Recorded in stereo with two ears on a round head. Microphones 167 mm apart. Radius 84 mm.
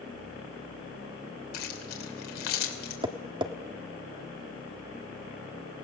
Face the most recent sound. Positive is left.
turn(degrees=-25)  # may be behind; listen again after turning